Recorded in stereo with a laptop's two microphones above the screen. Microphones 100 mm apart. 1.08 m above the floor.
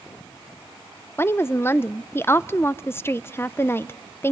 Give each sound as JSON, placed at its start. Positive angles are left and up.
{"t": 1.2, "sound": "a woman speaking", "side_deg": 25, "distance_m": 0.5}